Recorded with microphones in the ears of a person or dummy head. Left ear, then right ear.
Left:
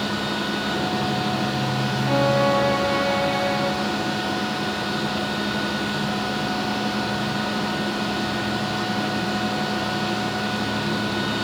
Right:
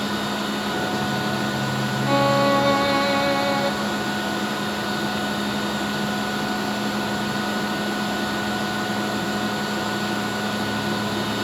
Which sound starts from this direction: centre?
A machine running, at 0.0 s.